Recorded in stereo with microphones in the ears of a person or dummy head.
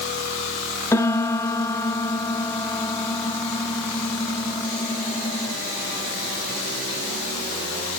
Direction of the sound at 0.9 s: 15° left (ahead or behind).